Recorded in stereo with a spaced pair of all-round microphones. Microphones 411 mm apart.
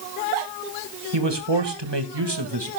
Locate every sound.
1.1 s a man speaking: 85° right, 2 m; by 2.7 s 65° right (ahead or behind), 2.5 m